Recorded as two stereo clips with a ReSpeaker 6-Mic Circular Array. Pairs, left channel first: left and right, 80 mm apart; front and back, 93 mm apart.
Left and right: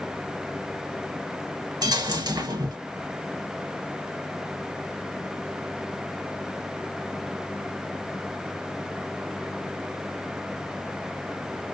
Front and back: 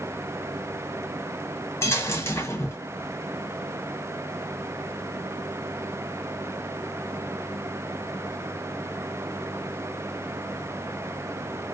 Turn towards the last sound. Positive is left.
turn(degrees=-60)